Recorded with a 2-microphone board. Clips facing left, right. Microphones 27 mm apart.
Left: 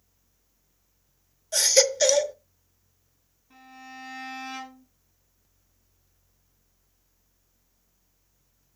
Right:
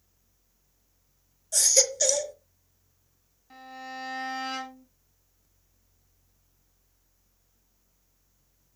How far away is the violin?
About 5.5 m.